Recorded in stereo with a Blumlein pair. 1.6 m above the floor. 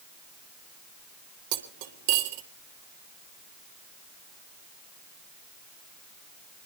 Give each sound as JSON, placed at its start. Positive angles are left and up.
{"t": 1.5, "sound": "cutlery clinking", "azimuth_deg": -45, "distance_m": 2.0}